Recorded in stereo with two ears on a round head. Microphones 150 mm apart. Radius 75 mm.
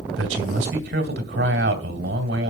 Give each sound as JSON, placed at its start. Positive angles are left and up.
{"t": 0.1, "sound": "a man speaking", "side_deg": -70, "distance_m": 2.0}